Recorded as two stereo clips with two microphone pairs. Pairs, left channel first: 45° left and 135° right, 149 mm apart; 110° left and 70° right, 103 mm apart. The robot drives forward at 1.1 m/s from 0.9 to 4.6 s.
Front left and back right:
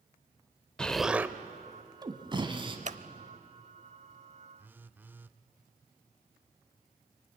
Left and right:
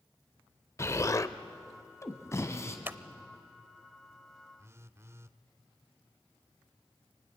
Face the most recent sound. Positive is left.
turn(degrees=-70)